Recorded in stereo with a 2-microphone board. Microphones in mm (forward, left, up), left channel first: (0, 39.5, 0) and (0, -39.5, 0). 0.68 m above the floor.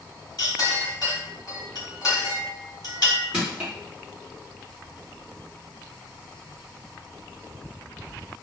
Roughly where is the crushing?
Centre.